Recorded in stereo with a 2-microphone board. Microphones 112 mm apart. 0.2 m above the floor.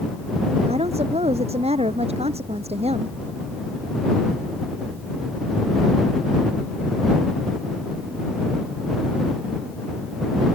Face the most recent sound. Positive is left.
turn(degrees=-65)  # may be behind; listen again after turning